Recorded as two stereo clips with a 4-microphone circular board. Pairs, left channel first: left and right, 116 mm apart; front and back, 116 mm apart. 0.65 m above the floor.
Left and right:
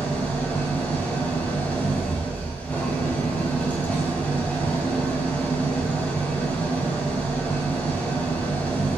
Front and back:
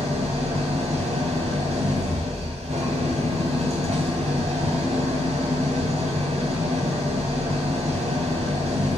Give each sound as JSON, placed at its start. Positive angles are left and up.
{"t": 0.0, "sound": "an engine running", "azimuth_deg": 165, "distance_m": 2.5}